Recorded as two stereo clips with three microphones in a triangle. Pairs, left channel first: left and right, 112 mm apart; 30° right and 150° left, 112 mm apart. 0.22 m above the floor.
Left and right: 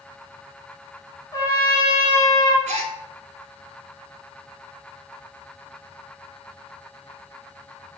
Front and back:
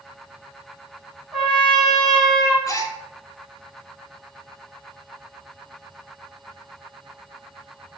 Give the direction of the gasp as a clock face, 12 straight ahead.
3 o'clock.